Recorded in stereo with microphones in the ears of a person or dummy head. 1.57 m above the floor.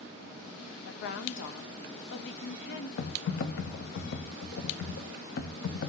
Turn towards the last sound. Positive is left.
turn(degrees=60)  # may be behind; listen again after turning